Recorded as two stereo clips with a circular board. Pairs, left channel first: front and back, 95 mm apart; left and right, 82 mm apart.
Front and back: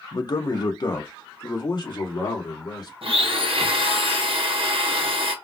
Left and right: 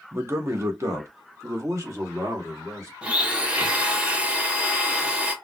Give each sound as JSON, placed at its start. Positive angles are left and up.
{"t": 0.1, "sound": "a man speaking", "azimuth_deg": -35, "distance_m": 0.5}
{"t": 3.0, "sound": "a blender", "azimuth_deg": -165, "distance_m": 0.6}